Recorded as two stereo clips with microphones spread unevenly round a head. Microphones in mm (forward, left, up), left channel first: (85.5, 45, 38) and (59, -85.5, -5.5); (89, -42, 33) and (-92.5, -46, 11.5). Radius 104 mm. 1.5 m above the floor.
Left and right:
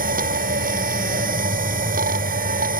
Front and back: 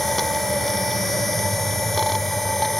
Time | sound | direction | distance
0.0 | a machine running | 85° right | ?